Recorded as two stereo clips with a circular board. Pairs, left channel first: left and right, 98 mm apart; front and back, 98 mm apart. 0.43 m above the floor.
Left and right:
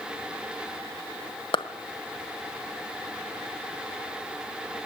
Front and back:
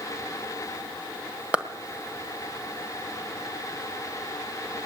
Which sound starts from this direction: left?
A clap, at 1.5 s.